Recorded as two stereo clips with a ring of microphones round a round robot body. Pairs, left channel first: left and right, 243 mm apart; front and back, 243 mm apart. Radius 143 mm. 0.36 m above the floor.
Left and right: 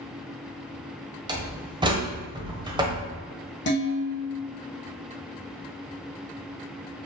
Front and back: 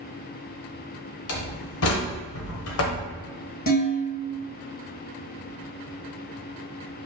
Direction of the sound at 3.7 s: 50° left.